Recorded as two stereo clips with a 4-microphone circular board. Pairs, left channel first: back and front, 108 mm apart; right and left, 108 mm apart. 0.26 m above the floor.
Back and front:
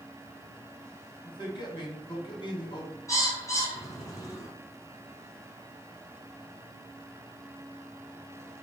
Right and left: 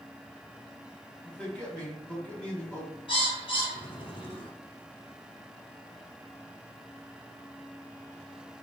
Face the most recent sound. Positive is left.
turn(degrees=-120)